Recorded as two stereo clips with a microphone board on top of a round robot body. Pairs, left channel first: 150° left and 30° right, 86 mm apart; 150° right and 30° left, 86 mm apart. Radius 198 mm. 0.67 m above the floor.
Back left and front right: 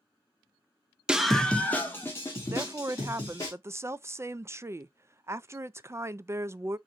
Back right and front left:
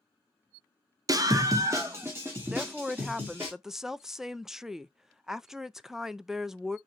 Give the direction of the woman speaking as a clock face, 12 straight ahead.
2 o'clock.